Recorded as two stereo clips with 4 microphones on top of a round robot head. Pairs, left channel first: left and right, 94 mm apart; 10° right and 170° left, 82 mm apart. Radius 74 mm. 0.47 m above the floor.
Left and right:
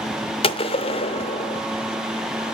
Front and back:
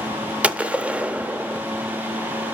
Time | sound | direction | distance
0.4 | a gunshot | 95° left | 0.7 m